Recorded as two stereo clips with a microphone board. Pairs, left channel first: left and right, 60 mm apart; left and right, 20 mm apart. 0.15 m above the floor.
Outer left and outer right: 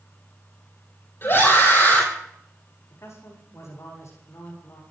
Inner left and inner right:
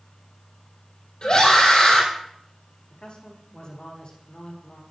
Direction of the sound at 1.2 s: 45° left (ahead or behind).